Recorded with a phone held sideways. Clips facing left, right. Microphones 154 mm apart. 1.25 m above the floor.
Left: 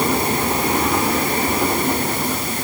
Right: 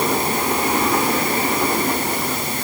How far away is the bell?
No bell in this recording.